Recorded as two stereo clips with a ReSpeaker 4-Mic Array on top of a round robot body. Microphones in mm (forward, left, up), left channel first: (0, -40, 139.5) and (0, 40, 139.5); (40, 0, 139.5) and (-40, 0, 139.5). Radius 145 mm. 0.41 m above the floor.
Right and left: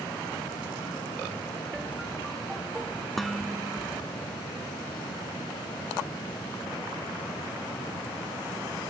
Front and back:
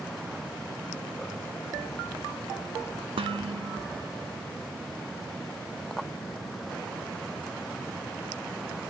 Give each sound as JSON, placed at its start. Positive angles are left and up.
{"t": 3.2, "sound": "dishes clattering", "azimuth_deg": 180}